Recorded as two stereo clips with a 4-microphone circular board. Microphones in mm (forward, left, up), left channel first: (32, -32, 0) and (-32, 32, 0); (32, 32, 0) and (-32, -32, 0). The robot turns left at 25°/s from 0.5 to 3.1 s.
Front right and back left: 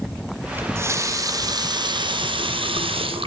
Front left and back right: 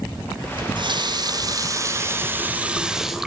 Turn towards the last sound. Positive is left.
turn(degrees=140)